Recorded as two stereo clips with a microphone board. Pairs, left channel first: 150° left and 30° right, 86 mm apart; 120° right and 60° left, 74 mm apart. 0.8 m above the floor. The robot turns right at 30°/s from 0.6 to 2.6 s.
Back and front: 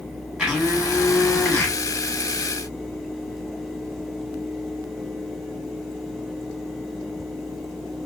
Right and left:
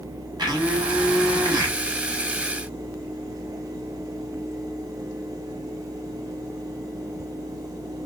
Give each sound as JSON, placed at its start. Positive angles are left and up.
{"t": 0.4, "sound": "a blender", "azimuth_deg": 50, "distance_m": 1.3}